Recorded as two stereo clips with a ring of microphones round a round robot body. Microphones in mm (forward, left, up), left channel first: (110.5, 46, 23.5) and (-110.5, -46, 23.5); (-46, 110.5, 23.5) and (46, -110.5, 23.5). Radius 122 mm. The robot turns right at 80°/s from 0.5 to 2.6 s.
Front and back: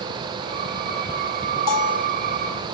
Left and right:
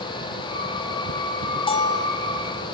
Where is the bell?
40° left, 1.7 m; by 2.1 s 75° left, 1.7 m.